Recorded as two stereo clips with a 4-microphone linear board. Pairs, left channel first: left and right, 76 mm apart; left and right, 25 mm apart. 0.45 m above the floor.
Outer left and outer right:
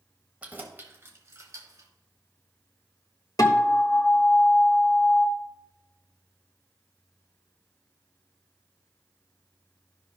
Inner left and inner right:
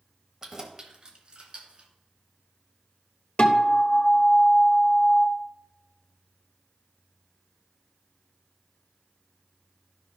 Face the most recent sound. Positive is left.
turn(degrees=50)  # may be behind; listen again after turning